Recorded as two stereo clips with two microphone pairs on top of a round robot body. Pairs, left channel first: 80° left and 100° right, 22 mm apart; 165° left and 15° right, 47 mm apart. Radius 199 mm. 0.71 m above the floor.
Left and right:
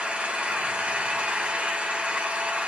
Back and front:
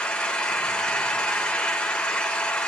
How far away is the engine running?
About 3 m.